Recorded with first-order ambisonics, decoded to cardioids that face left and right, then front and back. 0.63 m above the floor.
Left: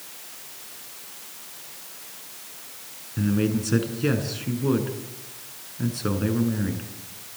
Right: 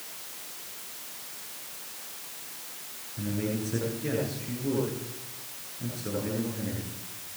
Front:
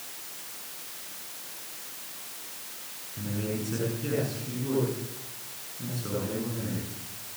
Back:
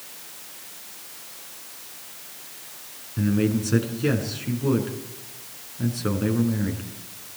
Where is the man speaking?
125° left, 7 m.